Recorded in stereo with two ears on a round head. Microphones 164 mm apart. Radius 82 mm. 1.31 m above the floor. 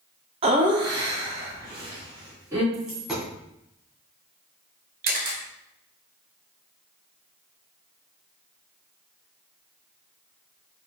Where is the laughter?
35° right (ahead or behind), 0.5 m; by 2.6 s 15° right (ahead or behind), 3 m.